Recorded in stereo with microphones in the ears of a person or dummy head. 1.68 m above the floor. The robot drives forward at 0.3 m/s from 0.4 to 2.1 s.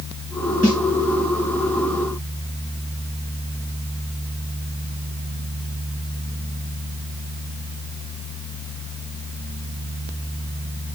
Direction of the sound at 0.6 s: 30° right (ahead or behind).